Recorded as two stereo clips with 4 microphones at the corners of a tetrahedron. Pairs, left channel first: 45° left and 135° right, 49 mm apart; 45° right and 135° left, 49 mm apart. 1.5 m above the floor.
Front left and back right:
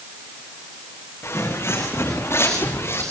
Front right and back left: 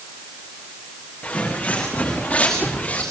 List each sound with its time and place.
1.2 s footsteps: 15° left, 7 m; by 3.0 s 20° left, 8 m